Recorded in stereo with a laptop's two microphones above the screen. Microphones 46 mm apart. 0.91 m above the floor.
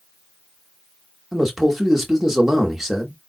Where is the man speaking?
10° right (ahead or behind), 1.1 m.